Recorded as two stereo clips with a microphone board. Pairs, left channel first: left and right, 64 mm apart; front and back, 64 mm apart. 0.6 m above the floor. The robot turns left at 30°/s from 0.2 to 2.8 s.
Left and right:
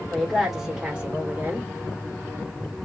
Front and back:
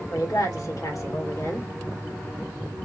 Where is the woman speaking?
Straight ahead, 1.1 m; by 1.7 s 40° right, 1.1 m.